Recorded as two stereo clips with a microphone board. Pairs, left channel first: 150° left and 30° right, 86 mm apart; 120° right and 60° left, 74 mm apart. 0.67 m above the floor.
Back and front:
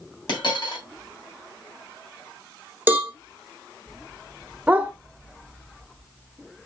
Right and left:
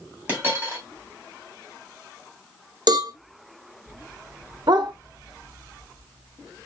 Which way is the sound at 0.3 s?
120° left.